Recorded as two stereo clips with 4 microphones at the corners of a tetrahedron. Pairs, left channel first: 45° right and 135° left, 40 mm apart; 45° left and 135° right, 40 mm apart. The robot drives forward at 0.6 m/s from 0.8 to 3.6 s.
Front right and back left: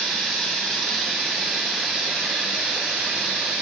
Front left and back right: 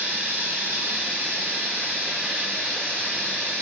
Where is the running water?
135° right, 1.8 m; by 3.6 s 155° right, 3 m.